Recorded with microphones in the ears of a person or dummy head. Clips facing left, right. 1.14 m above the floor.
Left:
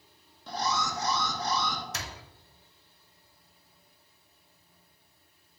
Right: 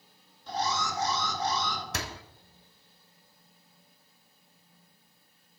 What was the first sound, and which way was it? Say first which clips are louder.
An alarm: even; 55° left (ahead or behind).